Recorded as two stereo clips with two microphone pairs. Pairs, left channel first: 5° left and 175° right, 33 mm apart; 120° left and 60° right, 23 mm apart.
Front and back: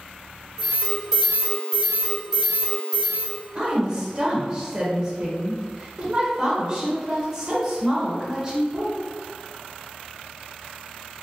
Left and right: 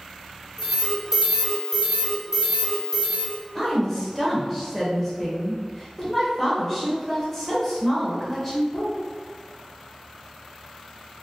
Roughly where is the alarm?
Right.